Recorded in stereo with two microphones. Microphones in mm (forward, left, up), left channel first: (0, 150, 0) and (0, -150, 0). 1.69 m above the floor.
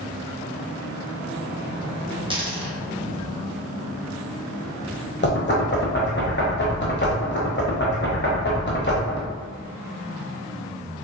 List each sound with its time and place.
2.3 s a dropped coin: 15° right (ahead or behind), 1.0 m
5.2 s knocking: 35° left (ahead or behind), 0.9 m